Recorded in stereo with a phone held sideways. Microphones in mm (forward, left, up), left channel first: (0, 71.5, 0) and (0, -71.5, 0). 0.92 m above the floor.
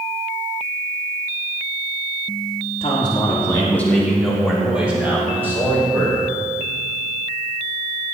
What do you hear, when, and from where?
2.8 s a man speaking: 40° left (ahead or behind), 2 m; by 6.2 s 20° right (ahead or behind), 5 m